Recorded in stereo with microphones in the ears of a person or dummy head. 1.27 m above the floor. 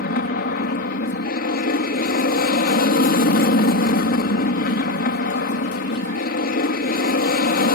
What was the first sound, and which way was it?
An aircraft, 50° left (ahead or behind).